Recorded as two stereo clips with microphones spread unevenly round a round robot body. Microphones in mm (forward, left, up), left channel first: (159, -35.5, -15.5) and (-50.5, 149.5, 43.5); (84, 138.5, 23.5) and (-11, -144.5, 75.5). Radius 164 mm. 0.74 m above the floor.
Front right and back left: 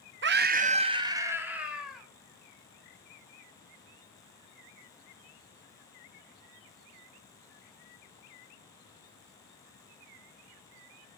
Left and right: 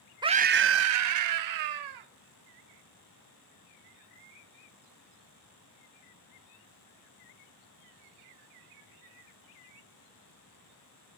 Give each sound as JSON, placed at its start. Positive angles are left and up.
{"t": 0.2, "sound": "a scream", "azimuth_deg": 170, "distance_m": 0.7}